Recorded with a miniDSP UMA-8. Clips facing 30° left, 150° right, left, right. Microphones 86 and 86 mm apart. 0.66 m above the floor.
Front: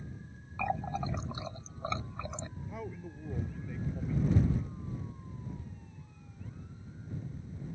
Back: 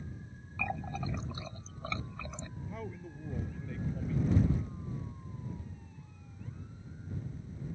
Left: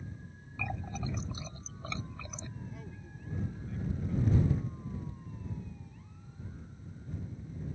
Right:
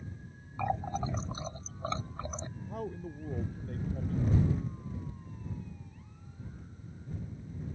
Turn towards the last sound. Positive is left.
turn(degrees=-55)